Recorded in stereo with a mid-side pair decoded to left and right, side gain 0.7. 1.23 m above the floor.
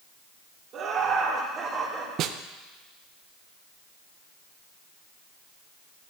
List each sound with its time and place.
0.7 s laughter: 45° right, 2.5 m; by 2.1 s 30° right, 3 m
2.2 s a snare drum: 50° right, 0.5 m